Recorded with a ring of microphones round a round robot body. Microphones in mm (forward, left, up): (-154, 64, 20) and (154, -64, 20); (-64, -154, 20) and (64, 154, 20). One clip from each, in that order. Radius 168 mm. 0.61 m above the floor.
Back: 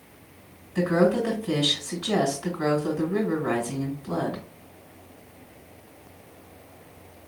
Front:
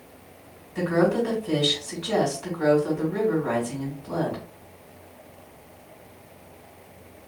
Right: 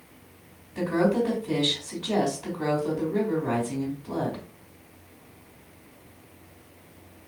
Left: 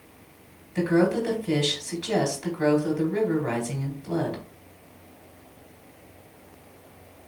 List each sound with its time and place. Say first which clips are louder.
0.8 s a woman speaking: even, left 1 dB; 80° left, 1.9 m